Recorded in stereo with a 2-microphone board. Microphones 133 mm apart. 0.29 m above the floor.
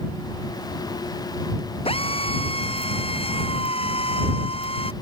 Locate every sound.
1.9 s a drill: 40° left (ahead or behind)